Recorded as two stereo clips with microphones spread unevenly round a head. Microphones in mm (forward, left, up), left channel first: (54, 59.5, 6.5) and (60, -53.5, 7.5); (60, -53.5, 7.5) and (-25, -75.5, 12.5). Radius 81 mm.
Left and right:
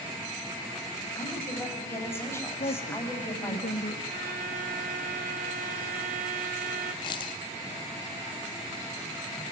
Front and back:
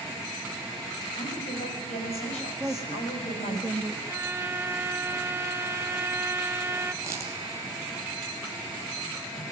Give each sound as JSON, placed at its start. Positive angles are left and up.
{"t": 1.1, "sound": "a woman speaking", "azimuth_deg": 25, "distance_m": 9.5}
{"t": 2.6, "sound": "a woman speaking", "azimuth_deg": 120, "distance_m": 2.0}
{"t": 4.1, "sound": "a violin", "azimuth_deg": -100, "distance_m": 2.0}
{"t": 7.0, "sound": "a dropped coin", "azimuth_deg": 140, "distance_m": 2.0}